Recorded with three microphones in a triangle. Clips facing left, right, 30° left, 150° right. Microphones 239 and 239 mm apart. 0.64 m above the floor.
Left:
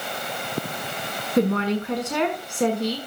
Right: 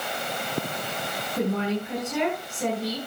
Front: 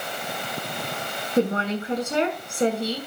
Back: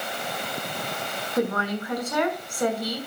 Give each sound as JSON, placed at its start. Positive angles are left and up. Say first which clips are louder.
{"t": 1.4, "sound": "a woman speaking", "louder": "left 5 dB, front 3 dB", "azimuth_deg": 95, "distance_m": 6.0}